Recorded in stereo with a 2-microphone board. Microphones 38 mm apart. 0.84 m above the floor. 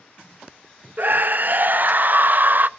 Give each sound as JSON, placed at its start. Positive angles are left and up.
{"t": 1.0, "sound": "a scream", "side_deg": -50, "distance_m": 0.5}